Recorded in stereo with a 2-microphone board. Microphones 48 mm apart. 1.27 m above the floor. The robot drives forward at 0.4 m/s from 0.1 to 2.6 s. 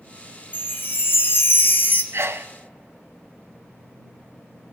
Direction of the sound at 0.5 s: 45° left (ahead or behind).